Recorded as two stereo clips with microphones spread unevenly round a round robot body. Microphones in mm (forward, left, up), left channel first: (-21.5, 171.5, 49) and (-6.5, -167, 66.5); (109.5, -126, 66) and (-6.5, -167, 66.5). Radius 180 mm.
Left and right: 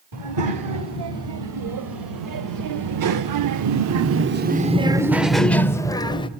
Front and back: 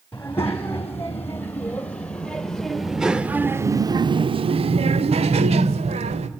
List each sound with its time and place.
0.1 s a child speaking: 50° right, 2 m; by 6.3 s 165° left, 1.3 m